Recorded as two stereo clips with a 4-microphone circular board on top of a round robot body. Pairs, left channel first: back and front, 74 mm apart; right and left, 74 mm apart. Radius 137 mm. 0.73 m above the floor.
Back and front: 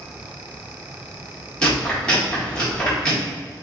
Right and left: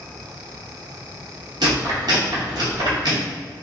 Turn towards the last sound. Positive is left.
turn(degrees=100)